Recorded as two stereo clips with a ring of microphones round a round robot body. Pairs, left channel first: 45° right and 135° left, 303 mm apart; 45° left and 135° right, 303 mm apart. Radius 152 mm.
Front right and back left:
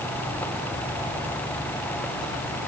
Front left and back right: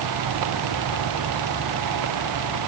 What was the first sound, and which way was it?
Only background noise.